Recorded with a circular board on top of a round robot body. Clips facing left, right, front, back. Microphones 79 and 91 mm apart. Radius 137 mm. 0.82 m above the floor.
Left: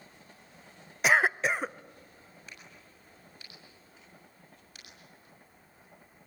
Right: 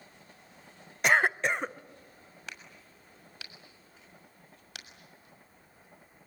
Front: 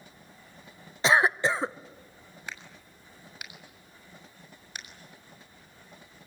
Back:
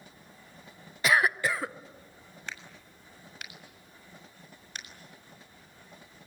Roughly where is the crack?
Right.